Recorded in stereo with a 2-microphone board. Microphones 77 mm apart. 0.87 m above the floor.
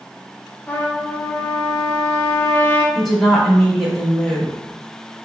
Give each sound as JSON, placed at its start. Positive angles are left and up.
{"t": 0.7, "sound": "a trumpet", "side_deg": 20, "distance_m": 0.5}
{"t": 3.0, "sound": "a woman speaking", "side_deg": 0, "distance_m": 1.6}